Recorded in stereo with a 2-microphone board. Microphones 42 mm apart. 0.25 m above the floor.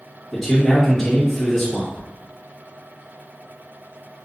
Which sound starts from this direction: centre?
A man speaking, at 0.3 s.